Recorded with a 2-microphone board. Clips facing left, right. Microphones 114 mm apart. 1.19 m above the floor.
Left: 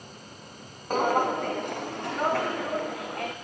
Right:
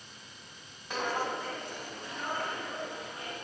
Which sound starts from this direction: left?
Footsteps, at 0.9 s.